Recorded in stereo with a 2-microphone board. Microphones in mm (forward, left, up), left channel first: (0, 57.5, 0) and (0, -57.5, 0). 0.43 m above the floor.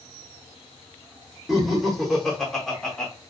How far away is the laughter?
About 0.8 m.